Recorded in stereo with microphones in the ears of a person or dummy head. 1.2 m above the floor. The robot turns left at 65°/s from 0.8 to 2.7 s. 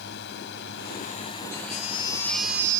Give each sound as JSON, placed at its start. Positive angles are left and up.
{"t": 0.0, "sound": "a drone", "azimuth_deg": 65}
{"t": 1.5, "sound": "a baby crying", "azimuth_deg": 60}